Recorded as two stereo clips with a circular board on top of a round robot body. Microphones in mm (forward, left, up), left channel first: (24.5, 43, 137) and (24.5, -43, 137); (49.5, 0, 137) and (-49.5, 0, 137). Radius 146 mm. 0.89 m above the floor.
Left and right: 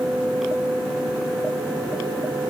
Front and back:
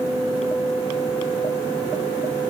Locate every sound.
Only background noise.